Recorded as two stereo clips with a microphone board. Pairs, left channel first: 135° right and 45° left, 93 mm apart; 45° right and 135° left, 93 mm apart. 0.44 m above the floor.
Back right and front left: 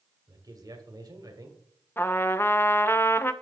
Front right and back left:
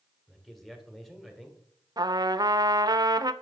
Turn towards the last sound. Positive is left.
turn(degrees=165)